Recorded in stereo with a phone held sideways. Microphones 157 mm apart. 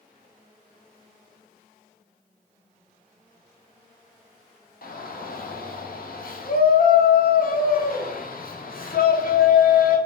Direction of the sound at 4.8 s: 65° left (ahead or behind).